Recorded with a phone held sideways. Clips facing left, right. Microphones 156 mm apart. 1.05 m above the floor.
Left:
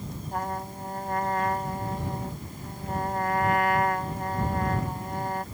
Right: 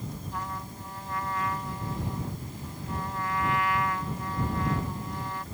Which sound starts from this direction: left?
A trumpet, at 0.3 s.